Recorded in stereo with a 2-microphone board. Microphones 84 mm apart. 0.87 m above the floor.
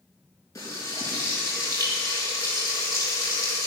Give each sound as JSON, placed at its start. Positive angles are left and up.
{"t": 0.6, "sound": "frying", "side_deg": 35, "distance_m": 5.5}